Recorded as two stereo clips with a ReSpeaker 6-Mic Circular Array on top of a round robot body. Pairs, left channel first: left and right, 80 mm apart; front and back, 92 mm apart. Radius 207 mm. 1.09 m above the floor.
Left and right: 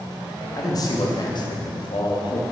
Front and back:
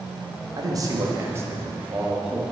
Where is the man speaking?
135° left, 2.5 m; by 2.5 s 95° left, 2.5 m.